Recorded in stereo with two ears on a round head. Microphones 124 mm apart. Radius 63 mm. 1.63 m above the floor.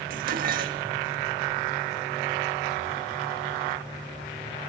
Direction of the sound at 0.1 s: 70° right (ahead or behind).